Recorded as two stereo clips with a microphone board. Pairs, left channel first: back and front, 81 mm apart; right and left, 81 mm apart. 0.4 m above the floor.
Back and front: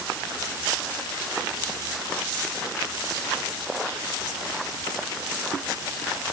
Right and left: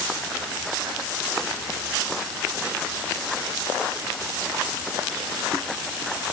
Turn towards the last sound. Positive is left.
No sound to turn to.